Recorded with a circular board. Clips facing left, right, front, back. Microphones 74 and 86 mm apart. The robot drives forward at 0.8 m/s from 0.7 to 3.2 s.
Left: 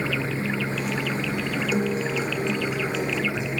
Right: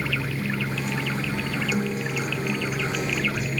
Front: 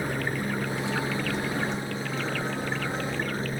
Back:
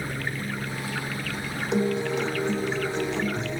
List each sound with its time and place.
0.0 s a helicopter: 55° left; by 3.6 s 30° left
1.7 s a guitar: 155° left; by 3.6 s 160° left